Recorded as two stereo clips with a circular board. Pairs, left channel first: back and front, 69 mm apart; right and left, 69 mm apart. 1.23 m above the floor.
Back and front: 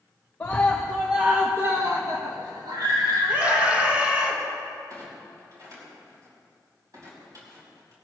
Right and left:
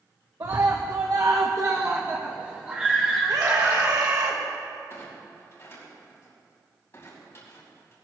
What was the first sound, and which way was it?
A scream, 115° left.